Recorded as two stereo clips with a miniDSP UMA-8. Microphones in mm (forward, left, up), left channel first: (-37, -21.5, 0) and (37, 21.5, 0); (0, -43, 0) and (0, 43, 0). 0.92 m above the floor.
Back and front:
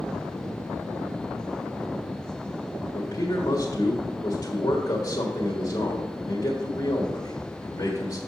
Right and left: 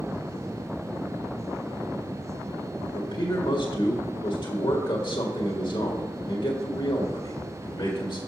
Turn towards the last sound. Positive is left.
turn(degrees=-110)